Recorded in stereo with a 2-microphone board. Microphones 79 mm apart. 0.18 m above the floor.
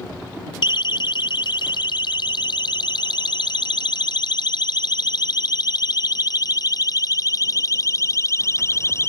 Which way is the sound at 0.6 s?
65° left (ahead or behind).